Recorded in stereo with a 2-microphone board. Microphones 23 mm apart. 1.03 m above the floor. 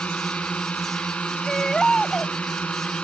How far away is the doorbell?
I don't hear a doorbell.